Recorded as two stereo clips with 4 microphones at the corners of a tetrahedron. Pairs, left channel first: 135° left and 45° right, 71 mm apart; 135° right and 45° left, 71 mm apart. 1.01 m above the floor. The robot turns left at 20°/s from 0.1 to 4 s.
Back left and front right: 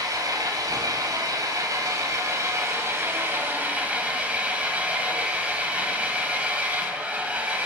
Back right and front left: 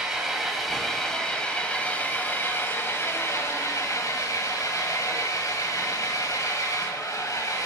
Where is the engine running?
35° right, 1.3 m; by 7.7 s 110° right, 1.3 m.